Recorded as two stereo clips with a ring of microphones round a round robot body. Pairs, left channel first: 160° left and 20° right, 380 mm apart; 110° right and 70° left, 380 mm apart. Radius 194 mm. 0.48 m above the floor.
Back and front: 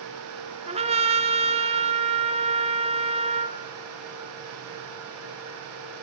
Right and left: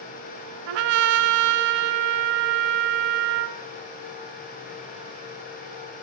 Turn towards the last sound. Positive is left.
turn(degrees=50)